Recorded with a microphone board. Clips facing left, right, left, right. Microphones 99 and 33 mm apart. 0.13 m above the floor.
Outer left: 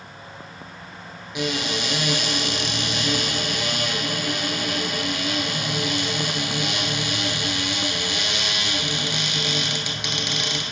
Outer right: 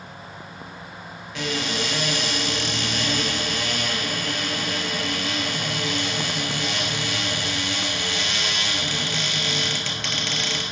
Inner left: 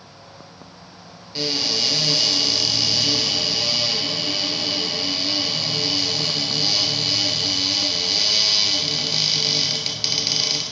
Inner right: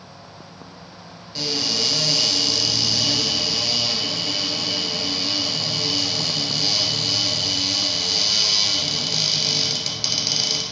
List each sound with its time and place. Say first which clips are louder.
1.4 s a cupboard door: outer left 1 dB, inner left 1 dB; 15° left (ahead or behind), 1.3 m